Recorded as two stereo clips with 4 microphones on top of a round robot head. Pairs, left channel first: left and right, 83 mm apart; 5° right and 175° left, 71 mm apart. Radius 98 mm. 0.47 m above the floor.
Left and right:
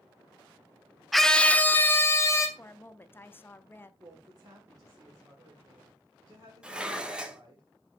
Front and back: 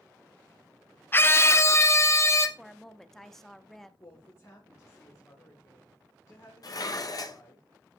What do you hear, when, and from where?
1.1 s a scream: straight ahead, 0.8 m; by 2.5 s 40° left, 1.6 m
2.6 s a woman speaking: 75° left, 0.8 m
4.0 s a woman speaking: 45° right, 2 m
6.6 s dishes clattering: 15° right, 1.1 m